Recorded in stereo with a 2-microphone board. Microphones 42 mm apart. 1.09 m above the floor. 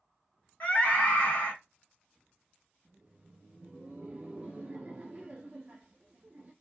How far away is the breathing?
No breathing in this recording.